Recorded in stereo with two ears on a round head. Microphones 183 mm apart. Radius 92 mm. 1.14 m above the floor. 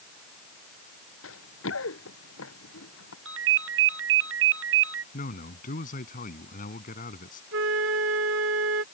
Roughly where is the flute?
Right.